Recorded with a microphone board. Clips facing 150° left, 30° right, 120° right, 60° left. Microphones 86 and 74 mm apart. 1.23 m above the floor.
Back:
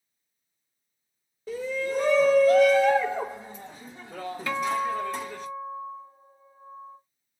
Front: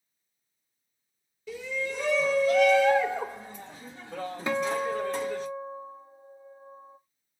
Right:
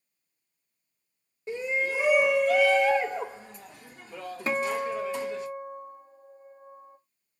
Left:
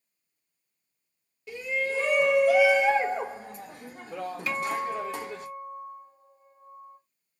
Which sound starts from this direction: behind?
A shout, at 1.5 s.